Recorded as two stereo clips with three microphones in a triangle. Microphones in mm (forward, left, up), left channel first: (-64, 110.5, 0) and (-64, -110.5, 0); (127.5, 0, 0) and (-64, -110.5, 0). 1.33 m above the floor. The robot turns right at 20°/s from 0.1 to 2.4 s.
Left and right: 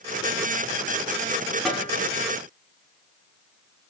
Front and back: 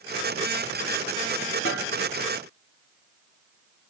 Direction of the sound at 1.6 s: Straight ahead.